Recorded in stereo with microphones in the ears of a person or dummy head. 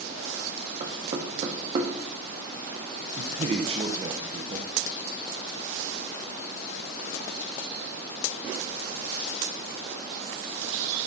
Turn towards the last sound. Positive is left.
turn(degrees=-35)  # may be behind; listen again after turning